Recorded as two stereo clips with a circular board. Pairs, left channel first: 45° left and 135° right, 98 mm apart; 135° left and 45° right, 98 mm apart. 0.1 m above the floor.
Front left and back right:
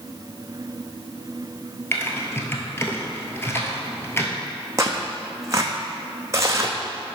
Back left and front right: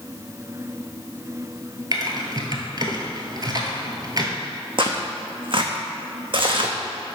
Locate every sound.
1.9 s typing on a keyboard: 15° right, 1.1 m
4.8 s tearing paper: 75° right, 1.0 m